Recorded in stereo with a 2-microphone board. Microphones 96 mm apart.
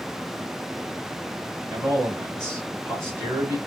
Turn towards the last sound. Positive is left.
turn(degrees=-25)  # may be behind; listen again after turning